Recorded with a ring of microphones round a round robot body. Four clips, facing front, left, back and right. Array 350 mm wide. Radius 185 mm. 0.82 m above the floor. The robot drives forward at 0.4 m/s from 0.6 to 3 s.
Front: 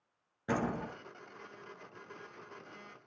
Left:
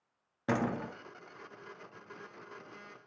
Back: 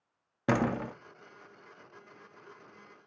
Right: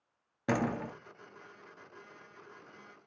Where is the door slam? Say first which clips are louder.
Right 1 dB, back 6 dB; 175° right, 0.6 m.